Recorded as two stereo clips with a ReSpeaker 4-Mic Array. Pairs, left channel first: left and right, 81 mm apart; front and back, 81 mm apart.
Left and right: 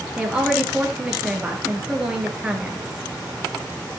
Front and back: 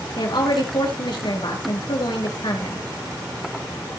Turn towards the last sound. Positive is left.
turn(degrees=-10)